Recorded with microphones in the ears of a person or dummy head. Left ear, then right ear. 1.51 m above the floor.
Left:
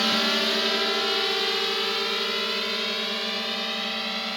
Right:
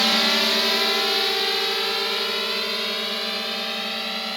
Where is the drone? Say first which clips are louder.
Right 4 dB; 20° right (ahead or behind); by 4.4 s 10° right (ahead or behind).